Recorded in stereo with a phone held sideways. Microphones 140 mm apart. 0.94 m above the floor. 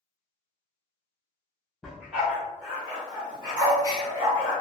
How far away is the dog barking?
About 1.4 m.